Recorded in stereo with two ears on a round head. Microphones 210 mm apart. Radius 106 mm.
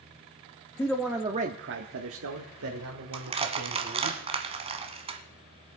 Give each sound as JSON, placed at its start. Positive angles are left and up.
{"t": 0.8, "sound": "a man speaking", "side_deg": 10, "distance_m": 0.9}
{"t": 3.1, "sound": "crushing", "side_deg": -25, "distance_m": 1.4}